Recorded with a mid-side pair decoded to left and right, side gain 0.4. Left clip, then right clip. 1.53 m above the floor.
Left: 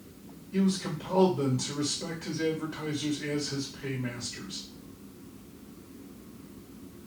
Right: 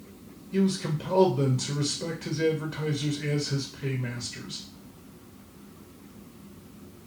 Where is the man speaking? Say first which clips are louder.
Right 3 dB; 50° right, 1.1 m.